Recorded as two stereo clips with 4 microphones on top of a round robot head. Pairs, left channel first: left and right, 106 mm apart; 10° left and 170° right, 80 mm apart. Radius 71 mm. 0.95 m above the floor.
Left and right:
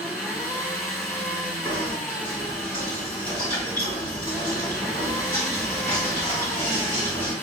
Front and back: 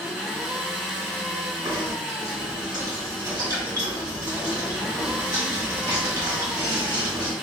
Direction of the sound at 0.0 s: 125° left.